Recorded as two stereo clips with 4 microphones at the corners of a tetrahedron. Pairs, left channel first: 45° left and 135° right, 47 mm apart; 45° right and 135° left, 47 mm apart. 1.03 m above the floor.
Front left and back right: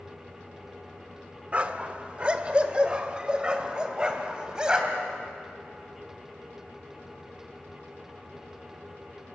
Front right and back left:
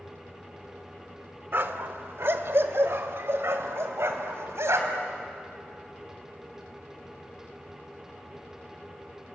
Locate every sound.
1.5 s a dog barking: 165° left, 1.1 m; by 5.1 s 150° left, 3 m